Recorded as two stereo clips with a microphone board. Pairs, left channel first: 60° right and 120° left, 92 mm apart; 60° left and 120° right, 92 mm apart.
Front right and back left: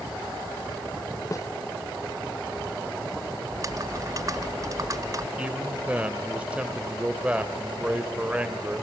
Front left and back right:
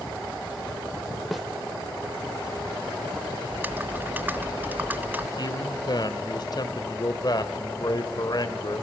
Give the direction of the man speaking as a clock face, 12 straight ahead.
10 o'clock.